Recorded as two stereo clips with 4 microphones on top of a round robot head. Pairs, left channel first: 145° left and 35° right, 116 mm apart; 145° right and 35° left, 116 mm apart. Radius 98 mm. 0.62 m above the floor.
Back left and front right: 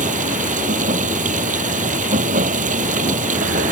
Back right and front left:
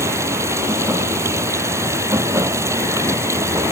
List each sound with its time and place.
0.0 s running water: 35° right